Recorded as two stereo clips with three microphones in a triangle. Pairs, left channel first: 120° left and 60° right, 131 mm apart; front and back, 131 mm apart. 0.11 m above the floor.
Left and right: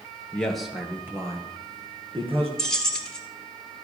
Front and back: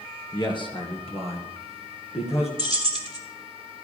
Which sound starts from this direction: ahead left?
A man speaking, at 0.3 s.